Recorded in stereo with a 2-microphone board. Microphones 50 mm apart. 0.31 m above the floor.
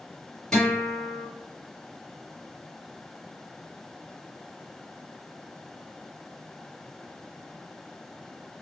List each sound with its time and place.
0.5 s a guitar: 10° left (ahead or behind), 1.5 m